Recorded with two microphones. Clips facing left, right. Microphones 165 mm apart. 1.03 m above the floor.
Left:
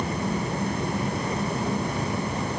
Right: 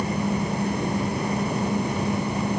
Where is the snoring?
No snoring in this recording.